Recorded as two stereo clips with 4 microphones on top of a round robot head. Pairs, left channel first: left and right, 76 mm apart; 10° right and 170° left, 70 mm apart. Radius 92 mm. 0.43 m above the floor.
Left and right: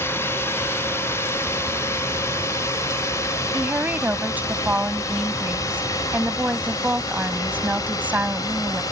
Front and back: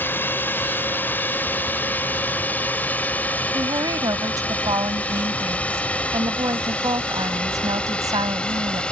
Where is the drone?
40° left; by 8.9 s 65° left.